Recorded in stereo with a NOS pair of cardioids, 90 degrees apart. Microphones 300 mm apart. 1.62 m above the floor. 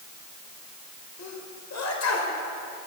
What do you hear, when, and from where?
1.2 s a sneeze: 55° left, 6 m